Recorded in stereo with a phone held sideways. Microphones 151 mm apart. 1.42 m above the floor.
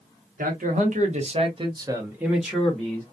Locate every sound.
0.4 s a man speaking: 65° right (ahead or behind), 1.1 m; by 3.0 s 15° left (ahead or behind), 1.0 m